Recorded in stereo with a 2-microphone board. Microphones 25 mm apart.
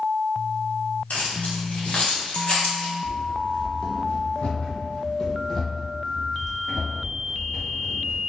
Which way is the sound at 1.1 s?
80° left.